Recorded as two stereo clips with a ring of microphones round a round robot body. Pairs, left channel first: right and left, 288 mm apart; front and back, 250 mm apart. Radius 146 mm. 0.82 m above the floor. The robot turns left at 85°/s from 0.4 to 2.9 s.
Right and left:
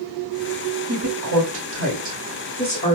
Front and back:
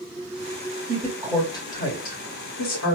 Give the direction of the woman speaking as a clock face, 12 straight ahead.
8 o'clock.